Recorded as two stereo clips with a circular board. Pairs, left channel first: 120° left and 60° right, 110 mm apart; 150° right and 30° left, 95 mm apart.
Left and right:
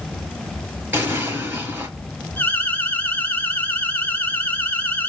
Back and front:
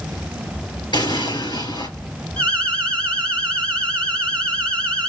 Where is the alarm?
160° left, 1.9 m.